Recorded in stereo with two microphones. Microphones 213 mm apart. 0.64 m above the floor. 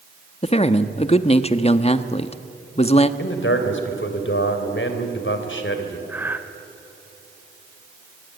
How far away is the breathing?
About 1.3 m.